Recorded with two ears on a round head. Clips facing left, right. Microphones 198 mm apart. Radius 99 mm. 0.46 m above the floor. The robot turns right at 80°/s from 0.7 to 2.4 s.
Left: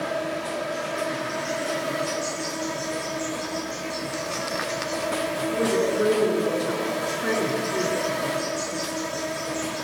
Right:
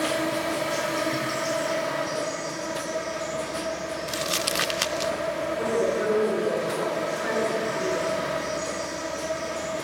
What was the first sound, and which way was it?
An insect, 75° right.